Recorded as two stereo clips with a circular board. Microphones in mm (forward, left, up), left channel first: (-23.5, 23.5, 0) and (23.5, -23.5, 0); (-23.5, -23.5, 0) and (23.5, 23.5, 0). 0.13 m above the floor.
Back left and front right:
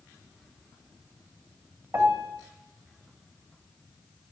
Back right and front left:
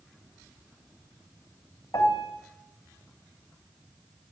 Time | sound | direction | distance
1.9 | a piano | 95° right | 2.5 m